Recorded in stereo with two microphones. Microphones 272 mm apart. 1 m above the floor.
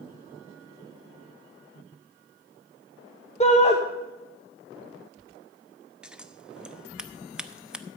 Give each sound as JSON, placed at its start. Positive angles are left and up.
{"t": 3.4, "sound": "a shout", "side_deg": 25, "distance_m": 0.8}
{"t": 6.0, "sound": "scissors", "side_deg": -5, "distance_m": 0.6}